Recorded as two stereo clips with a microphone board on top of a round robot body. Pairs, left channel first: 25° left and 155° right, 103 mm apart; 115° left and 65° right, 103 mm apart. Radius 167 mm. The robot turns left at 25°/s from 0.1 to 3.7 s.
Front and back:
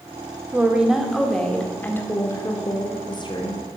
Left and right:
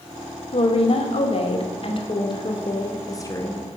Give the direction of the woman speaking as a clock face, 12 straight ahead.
8 o'clock.